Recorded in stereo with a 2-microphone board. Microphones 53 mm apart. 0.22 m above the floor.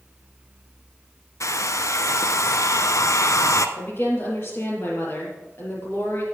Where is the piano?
No piano in this recording.